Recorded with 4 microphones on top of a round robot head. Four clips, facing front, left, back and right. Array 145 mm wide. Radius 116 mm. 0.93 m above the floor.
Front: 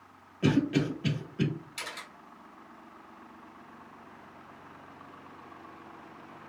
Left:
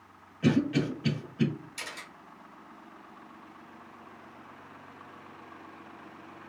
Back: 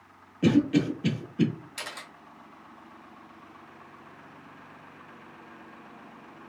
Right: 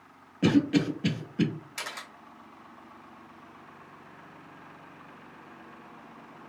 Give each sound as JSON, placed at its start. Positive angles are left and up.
{"t": 0.4, "sound": "a cough", "azimuth_deg": -95, "distance_m": 1.6}
{"t": 1.8, "sound": "a camera shutter", "azimuth_deg": -125, "distance_m": 0.9}